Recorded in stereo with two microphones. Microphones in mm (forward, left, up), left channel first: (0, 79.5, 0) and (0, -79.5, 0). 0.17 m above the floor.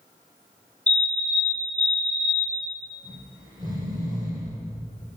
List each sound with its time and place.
0.9 s a fire alarm: 25° right (ahead or behind), 2 m
3.0 s snoring: 25° right (ahead or behind), 4.5 m